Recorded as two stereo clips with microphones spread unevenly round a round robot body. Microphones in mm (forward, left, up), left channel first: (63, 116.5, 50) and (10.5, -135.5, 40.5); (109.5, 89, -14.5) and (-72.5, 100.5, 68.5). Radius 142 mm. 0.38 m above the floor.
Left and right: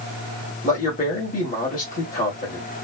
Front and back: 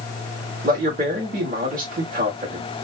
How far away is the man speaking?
About 1.3 m.